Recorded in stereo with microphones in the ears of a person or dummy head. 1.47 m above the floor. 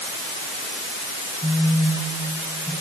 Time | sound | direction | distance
1.4 | a phone buzzing | 20° right (ahead or behind) | 3 m